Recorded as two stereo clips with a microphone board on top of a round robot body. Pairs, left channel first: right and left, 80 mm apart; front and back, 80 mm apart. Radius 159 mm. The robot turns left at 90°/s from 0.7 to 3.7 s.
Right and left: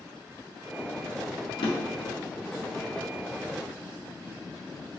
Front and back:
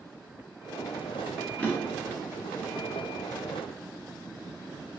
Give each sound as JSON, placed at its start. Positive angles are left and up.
{"t": 1.6, "sound": "a drawer", "azimuth_deg": -70, "distance_m": 0.8}